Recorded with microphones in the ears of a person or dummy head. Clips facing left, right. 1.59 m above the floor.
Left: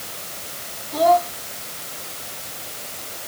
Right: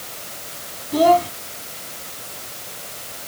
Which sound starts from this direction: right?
A child speaking, at 0.9 s.